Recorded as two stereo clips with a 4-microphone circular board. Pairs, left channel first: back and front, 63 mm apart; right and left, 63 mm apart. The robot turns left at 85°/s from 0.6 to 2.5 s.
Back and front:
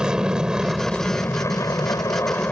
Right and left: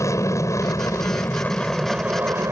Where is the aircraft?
75° right; by 2.5 s 120° left.